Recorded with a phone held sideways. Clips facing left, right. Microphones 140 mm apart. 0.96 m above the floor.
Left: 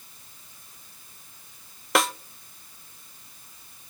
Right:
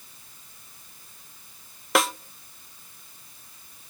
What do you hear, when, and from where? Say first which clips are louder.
1.9 s a snare drum: even; centre (ahead or behind), 0.6 m